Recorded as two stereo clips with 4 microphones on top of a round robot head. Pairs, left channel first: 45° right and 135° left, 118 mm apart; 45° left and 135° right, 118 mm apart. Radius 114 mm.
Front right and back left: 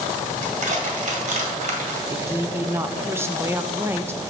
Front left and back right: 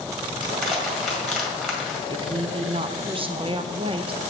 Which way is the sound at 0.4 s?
140° left.